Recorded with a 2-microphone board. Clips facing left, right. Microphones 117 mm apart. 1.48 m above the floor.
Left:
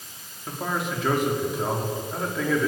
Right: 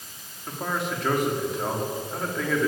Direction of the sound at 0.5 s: Centre (ahead or behind).